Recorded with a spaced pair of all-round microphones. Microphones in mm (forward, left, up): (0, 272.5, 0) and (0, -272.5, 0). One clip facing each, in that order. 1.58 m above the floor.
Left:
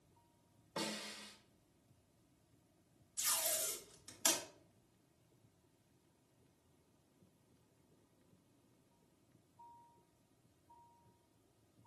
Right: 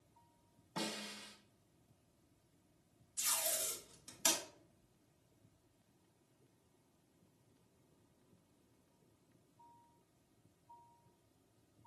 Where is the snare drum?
15° right (ahead or behind), 0.9 m.